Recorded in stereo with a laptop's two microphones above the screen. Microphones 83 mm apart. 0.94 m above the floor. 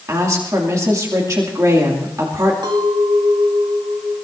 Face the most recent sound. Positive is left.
turn(degrees=-70)  # may be behind; listen again after turning